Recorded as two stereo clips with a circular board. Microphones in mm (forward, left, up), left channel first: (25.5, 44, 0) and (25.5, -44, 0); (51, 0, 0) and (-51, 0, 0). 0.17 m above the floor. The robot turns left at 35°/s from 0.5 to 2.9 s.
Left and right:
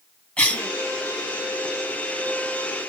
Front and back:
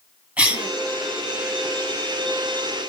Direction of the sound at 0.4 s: 135° left.